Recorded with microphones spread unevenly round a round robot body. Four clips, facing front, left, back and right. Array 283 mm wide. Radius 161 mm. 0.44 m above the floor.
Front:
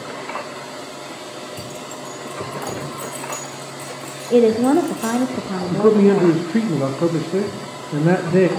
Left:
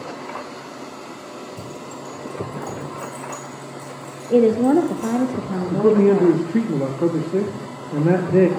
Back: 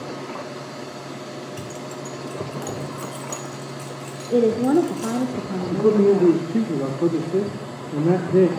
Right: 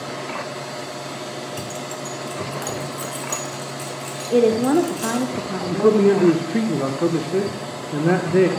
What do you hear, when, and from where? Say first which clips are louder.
1.6 s keys jangling: right 3 dB, front 1 dB; 100° right, 2.0 m; by 5.2 s 80° right, 5 m
4.3 s a woman speaking: left 1 dB, front 4 dB; 165° left, 0.8 m
5.7 s a man speaking: even, front 3 dB; 175° left, 0.9 m